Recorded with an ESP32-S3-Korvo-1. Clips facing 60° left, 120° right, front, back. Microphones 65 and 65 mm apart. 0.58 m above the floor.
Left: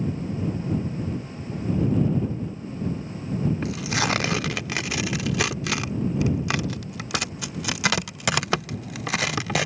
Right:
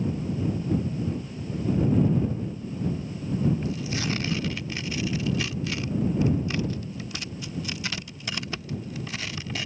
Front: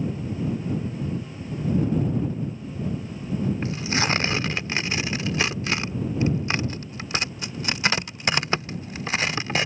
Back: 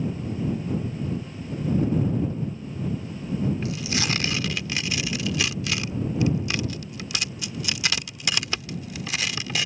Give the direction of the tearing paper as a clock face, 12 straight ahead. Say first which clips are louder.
Left 4 dB, front 2 dB; 10 o'clock.